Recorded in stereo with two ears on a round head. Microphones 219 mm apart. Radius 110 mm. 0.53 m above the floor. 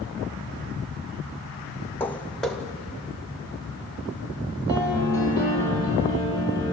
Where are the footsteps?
10° left (ahead or behind), 1.1 m; by 5.3 s 10° right (ahead or behind), 5 m.